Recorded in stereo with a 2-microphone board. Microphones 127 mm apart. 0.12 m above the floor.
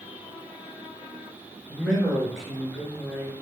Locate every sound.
1.7 s a man speaking: centre (ahead or behind), 1.4 m